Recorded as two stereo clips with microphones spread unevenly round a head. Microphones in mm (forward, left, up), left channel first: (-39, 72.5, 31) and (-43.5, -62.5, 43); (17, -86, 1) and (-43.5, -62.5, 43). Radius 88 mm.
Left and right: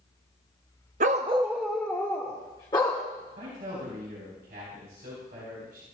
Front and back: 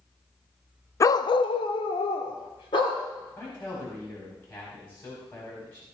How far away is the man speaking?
About 4.5 m.